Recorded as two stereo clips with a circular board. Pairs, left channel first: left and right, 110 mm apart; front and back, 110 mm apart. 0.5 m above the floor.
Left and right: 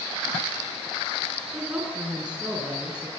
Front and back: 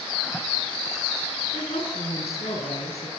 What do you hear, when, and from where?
1.5 s a woman speaking: 10° right, 6 m